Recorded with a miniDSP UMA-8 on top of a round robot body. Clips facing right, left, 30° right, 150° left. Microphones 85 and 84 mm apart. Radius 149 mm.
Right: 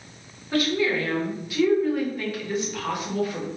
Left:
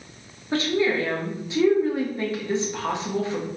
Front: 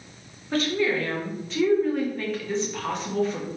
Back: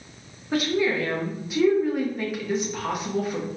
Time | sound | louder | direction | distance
0.5 | a woman speaking | left 1 dB, back 1 dB | 90° left | 1.3 m